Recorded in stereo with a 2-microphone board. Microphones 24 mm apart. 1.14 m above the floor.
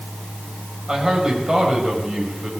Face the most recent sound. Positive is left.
turn(degrees=-35)  # may be behind; listen again after turning